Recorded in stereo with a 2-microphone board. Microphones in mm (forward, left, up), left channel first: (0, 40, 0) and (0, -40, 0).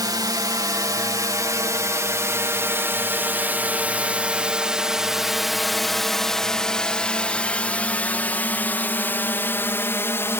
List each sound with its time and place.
0.0 s a drone: 55° right (ahead or behind); by 10.4 s 30° left (ahead or behind)